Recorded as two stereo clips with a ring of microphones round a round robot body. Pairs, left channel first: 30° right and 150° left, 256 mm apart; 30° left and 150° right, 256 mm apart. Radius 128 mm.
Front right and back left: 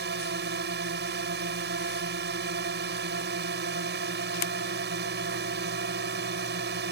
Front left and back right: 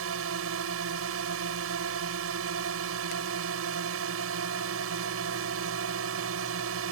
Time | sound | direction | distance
0.0 | a drone | 170° right | ?